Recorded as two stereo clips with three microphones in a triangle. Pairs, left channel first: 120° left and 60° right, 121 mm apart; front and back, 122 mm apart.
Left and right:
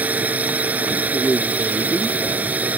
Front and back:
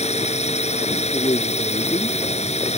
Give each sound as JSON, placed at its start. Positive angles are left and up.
{"t": 0.0, "sound": "a drone", "azimuth_deg": 15}
{"t": 1.1, "sound": "a man speaking", "azimuth_deg": 40}